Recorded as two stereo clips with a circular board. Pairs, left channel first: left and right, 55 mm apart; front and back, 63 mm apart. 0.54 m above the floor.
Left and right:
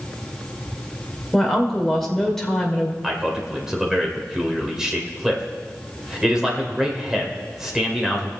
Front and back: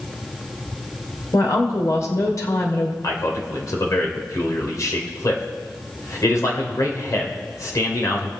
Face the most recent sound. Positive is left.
turn(degrees=-10)